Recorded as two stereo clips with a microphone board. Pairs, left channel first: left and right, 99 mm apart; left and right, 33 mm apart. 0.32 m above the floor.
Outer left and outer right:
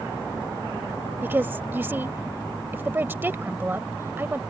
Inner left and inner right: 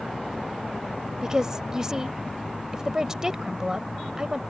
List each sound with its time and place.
1.2 s a woman speaking: 20° right (ahead or behind)